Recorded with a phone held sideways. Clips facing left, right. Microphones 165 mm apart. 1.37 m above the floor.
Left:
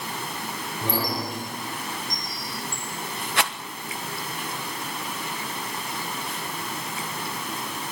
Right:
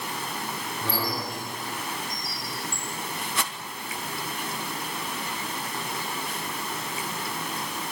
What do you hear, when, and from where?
0.8 s a squeak: 15° left (ahead or behind), 8 m
3.4 s a rattle: 75° left (ahead or behind), 1.2 m